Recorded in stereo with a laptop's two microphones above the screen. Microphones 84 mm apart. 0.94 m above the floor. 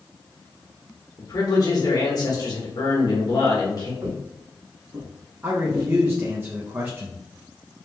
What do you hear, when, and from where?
1.2 s a man speaking: 45° left (ahead or behind), 1.4 m
4.0 s footsteps: 50° right (ahead or behind), 2 m; by 5.9 s 30° right (ahead or behind), 1.5 m
5.4 s a man speaking: 25° right (ahead or behind), 0.7 m